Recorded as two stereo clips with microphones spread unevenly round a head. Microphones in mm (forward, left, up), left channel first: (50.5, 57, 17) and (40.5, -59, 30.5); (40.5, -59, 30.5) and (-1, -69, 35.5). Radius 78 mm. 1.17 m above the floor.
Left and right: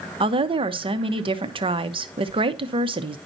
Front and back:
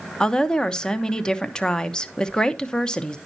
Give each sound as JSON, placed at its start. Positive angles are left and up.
{"t": 0.2, "sound": "a woman speaking", "azimuth_deg": -55, "distance_m": 0.9}